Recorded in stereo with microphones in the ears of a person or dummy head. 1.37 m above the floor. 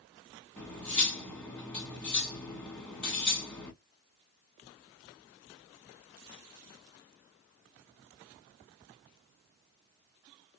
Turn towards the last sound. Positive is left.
turn(degrees=5)  # may be behind; listen again after turning